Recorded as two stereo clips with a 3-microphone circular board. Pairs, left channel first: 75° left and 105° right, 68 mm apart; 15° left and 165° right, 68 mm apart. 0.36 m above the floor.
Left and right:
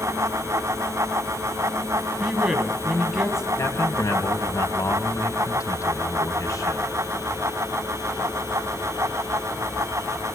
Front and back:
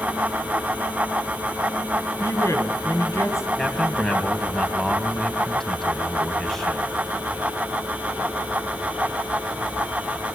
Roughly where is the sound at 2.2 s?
Ahead right.